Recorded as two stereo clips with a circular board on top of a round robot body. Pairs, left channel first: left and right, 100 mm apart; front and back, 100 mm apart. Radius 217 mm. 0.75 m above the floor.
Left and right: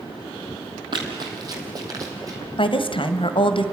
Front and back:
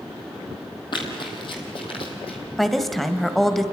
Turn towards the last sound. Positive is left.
turn(degrees=90)